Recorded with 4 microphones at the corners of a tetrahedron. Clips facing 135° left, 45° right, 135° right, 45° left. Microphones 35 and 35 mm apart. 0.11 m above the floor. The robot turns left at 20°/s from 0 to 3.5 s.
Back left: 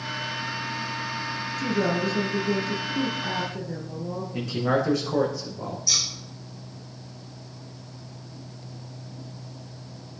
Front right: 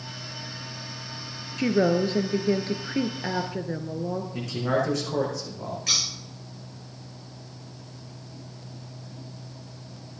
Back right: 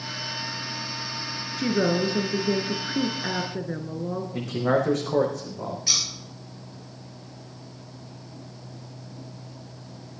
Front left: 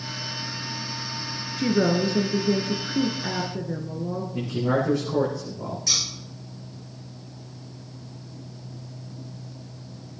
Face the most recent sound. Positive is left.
turn(degrees=-65)